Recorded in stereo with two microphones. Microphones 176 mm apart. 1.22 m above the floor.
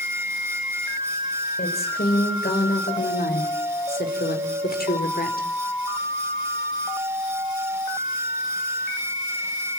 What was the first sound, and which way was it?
A woman speaking, 70° left (ahead or behind).